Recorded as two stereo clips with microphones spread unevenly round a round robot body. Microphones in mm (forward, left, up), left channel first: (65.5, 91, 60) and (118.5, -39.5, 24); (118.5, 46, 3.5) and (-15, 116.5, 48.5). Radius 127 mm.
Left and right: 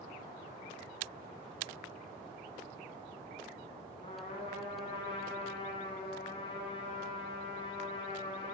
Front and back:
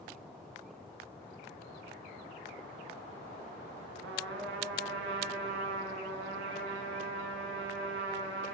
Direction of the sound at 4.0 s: Straight behind.